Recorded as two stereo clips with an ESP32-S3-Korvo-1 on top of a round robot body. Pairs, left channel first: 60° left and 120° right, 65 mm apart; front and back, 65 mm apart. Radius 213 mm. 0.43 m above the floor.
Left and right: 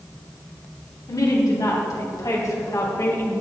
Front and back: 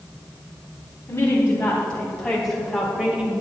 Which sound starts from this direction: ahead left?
A woman speaking, at 1.1 s.